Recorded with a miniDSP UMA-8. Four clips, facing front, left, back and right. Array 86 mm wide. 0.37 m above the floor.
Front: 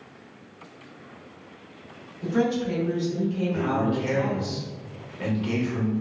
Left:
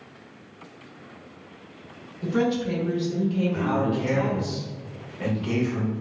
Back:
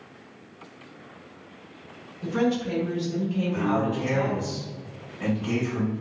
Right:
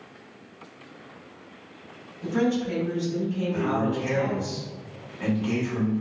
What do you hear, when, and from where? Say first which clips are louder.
2.2 s a woman speaking: left 1 dB, front 1 dB; 90° left, 0.8 m
3.5 s a man speaking: left 1 dB, back 1 dB; 30° left, 0.8 m